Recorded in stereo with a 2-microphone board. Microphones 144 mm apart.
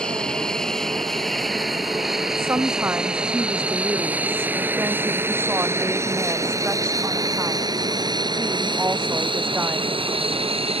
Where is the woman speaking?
15° right (ahead or behind).